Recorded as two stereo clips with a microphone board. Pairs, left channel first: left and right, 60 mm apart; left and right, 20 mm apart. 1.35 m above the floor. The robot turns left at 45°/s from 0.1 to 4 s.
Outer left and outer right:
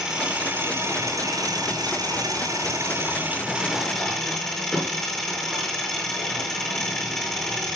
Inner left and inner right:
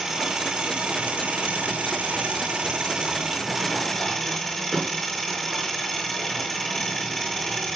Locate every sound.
0.0 s an engine running: 15° right, 4.5 m; by 7.8 s 170° left, 4.5 m